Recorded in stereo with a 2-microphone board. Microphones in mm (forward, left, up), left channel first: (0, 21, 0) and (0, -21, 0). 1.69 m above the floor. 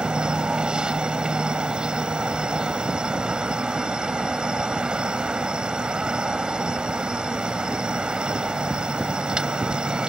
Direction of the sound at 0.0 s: 20° right (ahead or behind).